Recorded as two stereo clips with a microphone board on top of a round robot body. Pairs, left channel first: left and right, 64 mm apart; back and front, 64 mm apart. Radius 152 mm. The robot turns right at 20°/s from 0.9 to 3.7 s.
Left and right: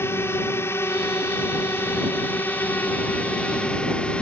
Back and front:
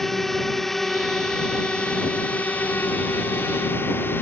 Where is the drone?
95° left; by 4.2 s 155° left.